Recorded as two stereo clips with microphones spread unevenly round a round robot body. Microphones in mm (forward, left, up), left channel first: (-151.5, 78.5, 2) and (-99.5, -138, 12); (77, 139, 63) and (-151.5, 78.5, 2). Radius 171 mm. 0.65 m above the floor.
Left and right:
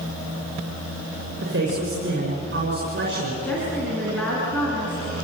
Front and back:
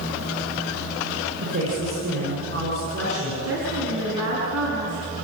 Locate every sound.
1.4 s a man speaking: 110° right, 7 m
3.4 s a woman speaking: 175° right, 7 m